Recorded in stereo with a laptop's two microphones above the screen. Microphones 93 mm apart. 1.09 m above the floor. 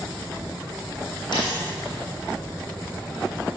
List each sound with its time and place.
1.3 s a dropped coin: 60° left (ahead or behind), 2.5 m